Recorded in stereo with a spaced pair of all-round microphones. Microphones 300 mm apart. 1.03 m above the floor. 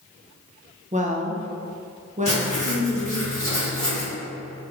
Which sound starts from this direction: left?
Writing, at 2.2 s.